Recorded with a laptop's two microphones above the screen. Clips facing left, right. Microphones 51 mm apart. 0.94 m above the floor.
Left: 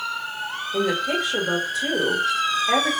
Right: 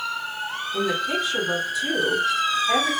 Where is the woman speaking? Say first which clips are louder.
Left 2 dB; 60° left (ahead or behind), 1.8 m.